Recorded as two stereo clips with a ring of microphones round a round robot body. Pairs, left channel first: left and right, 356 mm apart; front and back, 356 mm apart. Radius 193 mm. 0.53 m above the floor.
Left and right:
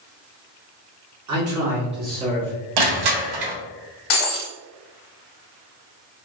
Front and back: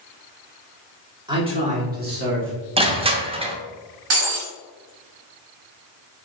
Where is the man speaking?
105° right, 1.6 m; by 2.7 s 170° right, 1.4 m.